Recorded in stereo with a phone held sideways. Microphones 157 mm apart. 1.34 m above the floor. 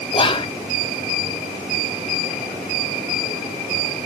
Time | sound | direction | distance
0.1 | whispering | 35° left (ahead or behind) | 0.6 m